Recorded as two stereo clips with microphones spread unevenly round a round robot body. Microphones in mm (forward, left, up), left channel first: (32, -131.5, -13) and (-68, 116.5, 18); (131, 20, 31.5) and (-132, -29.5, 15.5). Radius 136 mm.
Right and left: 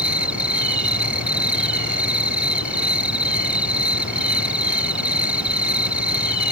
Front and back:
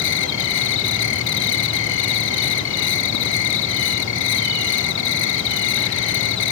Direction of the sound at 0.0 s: 35° left.